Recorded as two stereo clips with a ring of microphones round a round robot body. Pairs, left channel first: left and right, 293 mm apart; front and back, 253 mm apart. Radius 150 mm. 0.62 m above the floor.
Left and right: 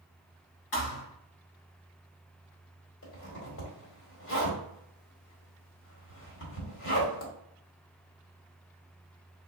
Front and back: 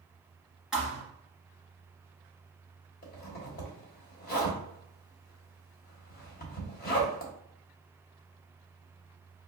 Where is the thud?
95° left, 1.7 m.